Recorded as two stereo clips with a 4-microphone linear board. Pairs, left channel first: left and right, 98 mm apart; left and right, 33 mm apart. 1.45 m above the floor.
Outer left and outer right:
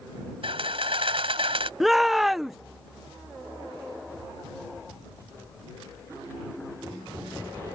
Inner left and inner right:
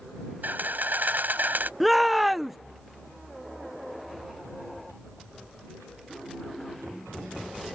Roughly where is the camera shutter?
Right.